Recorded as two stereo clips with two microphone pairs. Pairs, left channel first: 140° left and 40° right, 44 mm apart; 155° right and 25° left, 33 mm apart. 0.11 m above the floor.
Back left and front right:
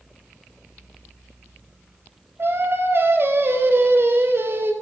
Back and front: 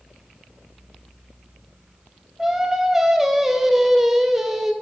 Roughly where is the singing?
Ahead right.